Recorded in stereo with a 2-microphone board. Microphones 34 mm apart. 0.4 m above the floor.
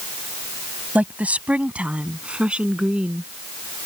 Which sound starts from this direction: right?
A woman speaking, at 0.9 s.